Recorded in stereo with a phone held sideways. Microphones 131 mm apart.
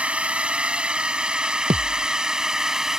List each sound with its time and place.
0.0 s a drone: 10° right (ahead or behind); by 3.0 s 5° right (ahead or behind)
1.7 s a thud: 60° right (ahead or behind)